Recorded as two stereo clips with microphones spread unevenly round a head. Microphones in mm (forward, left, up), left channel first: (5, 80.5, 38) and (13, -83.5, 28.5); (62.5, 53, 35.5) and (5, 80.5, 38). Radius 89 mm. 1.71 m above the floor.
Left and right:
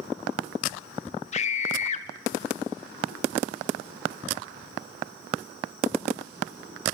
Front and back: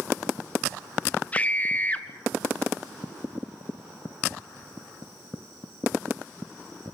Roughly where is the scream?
Ahead left.